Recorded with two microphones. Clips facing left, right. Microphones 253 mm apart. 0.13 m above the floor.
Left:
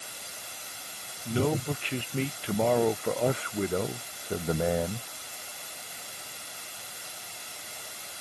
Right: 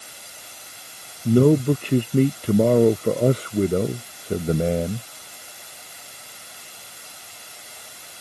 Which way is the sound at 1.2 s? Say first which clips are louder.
Right 12 dB; 55° right (ahead or behind).